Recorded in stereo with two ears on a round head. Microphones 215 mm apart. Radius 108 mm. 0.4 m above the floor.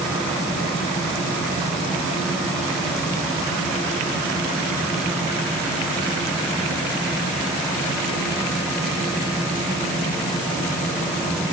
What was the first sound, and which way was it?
Only background noise.